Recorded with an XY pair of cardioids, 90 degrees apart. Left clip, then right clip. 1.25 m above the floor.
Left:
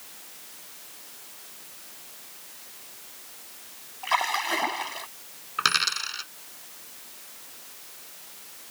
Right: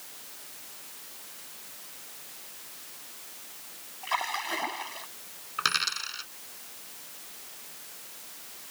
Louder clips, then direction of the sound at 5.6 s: Left 4 dB; 30° left.